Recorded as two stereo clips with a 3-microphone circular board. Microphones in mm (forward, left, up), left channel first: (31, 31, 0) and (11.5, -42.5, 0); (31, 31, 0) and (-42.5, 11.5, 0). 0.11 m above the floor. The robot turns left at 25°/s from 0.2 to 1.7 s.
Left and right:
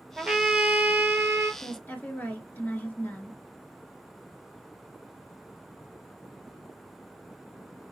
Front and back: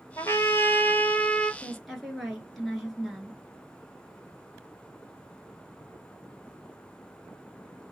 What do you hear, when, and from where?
0.2 s a trumpet: 25° right, 0.6 m; by 1.5 s 60° right, 0.6 m
1.6 s a woman speaking: 105° left, 1.2 m; by 3.4 s 100° left, 1.2 m